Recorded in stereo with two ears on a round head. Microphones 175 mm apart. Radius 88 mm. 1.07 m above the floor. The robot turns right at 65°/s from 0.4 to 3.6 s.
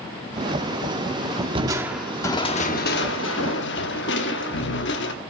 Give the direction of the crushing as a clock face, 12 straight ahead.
1 o'clock.